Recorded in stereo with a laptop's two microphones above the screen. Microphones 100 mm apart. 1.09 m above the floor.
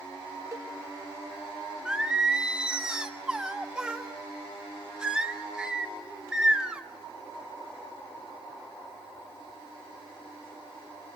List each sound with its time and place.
0.5 s a cowbell: 30° right (ahead or behind), 1.4 m
1.9 s singing: 10° right (ahead or behind), 1.3 m